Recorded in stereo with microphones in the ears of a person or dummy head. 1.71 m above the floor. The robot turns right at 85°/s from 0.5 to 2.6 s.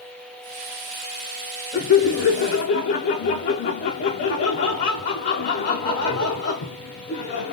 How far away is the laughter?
About 0.6 m.